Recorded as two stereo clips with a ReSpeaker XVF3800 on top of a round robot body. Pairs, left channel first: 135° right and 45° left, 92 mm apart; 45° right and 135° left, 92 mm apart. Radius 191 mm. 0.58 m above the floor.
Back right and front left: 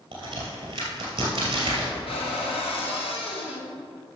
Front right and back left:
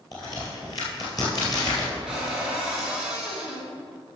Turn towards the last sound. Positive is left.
turn(degrees=-140)